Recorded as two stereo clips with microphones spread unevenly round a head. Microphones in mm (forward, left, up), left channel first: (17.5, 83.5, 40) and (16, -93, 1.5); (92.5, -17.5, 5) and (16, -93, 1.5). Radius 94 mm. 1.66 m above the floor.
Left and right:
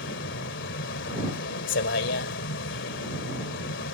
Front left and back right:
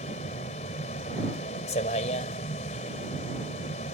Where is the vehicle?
80° left.